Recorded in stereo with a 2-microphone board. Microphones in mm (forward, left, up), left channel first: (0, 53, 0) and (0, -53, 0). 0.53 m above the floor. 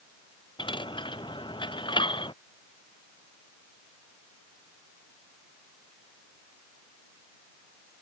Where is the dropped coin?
50° left (ahead or behind).